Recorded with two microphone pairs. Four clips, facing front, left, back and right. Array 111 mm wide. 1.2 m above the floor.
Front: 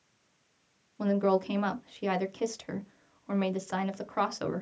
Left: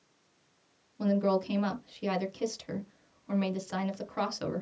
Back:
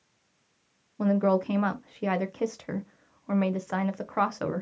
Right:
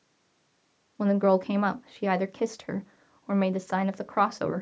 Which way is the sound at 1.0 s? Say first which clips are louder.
Right 5 dB, back 2 dB; 100° right.